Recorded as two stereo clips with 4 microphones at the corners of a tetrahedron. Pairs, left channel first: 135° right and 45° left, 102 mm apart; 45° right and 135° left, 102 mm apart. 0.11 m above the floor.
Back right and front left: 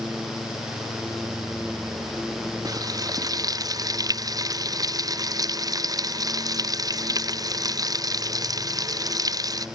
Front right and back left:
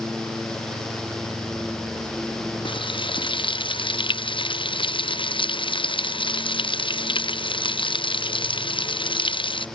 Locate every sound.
2.6 s frying: 10° right